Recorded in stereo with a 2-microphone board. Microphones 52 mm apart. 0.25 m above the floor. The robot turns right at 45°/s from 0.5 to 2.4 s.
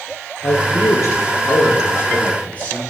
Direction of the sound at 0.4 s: 65° left.